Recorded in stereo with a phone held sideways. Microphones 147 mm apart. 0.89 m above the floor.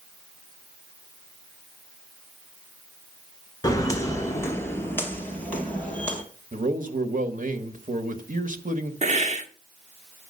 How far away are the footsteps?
About 0.9 m.